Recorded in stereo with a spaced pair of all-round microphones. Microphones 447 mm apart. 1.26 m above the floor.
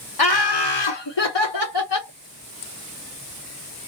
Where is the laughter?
55° left (ahead or behind), 1.0 m; by 2.1 s 50° left (ahead or behind), 1.1 m.